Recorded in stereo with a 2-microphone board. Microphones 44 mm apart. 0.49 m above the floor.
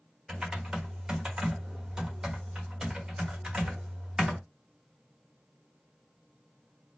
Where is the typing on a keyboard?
20° right (ahead or behind), 1.1 m.